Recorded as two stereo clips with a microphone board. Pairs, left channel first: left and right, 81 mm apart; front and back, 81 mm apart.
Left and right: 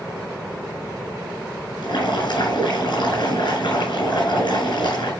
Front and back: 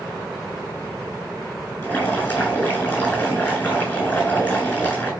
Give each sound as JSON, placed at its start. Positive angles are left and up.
{"t": 1.8, "sound": "boiling", "azimuth_deg": 65, "distance_m": 8.5}